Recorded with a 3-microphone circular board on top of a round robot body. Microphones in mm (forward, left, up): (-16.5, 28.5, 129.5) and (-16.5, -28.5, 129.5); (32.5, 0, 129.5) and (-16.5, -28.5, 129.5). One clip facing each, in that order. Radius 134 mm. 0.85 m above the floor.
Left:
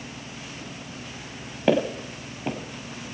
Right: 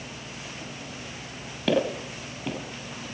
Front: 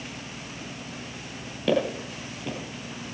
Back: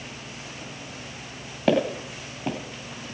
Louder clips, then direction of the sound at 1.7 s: Left 2 dB, back 2 dB; 145° left.